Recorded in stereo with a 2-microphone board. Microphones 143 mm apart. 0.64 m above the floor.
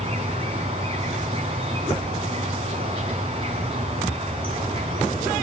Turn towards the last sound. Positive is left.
turn(degrees=-40)  # may be behind; listen again after turning